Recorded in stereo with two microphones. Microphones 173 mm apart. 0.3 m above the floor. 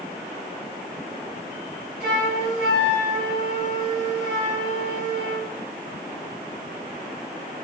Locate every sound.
2.0 s a flute: 45° left (ahead or behind), 3 m